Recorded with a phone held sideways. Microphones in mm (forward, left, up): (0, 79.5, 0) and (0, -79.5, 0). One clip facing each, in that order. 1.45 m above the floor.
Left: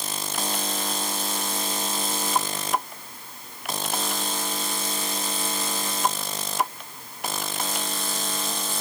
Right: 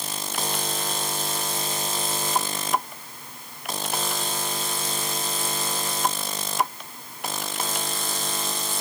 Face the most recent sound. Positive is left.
No sound to turn to.